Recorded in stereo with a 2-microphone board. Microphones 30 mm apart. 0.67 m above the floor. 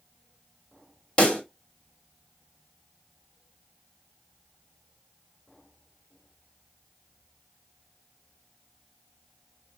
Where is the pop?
35° left (ahead or behind), 1.4 m.